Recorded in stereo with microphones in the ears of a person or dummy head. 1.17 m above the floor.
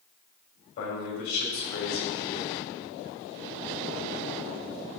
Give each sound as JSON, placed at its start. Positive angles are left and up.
{"t": 0.8, "sound": "a man speaking", "side_deg": 70, "distance_m": 3.0}